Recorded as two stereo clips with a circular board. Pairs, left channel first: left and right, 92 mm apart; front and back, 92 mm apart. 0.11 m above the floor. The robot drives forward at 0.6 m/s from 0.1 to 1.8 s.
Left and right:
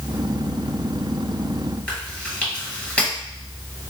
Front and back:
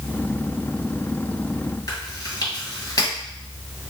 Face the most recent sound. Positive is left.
turn(degrees=20)